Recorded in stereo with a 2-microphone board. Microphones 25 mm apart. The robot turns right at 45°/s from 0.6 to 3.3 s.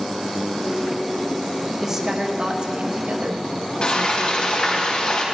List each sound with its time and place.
1.8 s a woman speaking: 160° right, 1.8 m; by 4.8 s 95° right, 1.8 m
3.8 s frying: 45° left (ahead or behind), 3.5 m